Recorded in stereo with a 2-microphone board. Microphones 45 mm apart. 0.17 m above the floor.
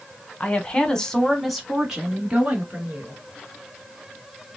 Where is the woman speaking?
30° left (ahead or behind), 1.1 m; by 3.2 s 25° right (ahead or behind), 2.0 m.